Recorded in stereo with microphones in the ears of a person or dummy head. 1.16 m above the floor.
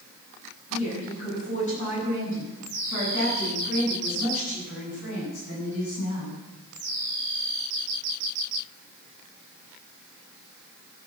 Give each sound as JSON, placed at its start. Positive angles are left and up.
{"t": 0.7, "sound": "a woman speaking", "side_deg": 25, "distance_m": 8.0}